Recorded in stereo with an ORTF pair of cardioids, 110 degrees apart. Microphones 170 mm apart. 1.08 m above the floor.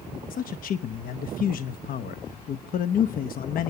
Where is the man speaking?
55° left, 1.0 m.